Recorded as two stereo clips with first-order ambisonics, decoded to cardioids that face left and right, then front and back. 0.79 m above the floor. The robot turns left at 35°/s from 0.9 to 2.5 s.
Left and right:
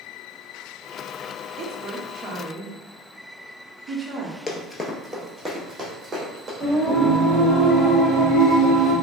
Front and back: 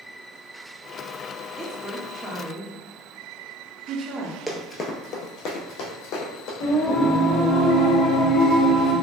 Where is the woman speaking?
100° right, 0.7 m; by 4.4 s 130° right, 0.7 m.